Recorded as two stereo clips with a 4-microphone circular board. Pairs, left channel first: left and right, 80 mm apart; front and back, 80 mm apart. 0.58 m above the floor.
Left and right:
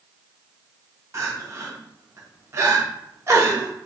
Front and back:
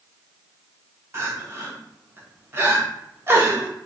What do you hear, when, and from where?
1.1 s crying: 130° right, 1.0 m